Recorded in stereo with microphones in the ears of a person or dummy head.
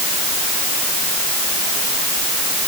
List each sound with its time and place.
Only background noise.